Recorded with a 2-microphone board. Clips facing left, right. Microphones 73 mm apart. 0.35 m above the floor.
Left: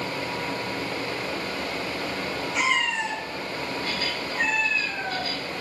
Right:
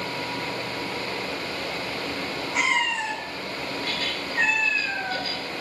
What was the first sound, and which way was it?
A cat meowing, 50° right (ahead or behind).